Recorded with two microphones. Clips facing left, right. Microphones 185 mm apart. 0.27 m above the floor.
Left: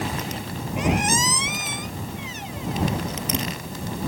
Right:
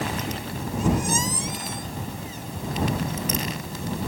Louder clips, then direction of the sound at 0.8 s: Left 1 dB; 75° left (ahead or behind).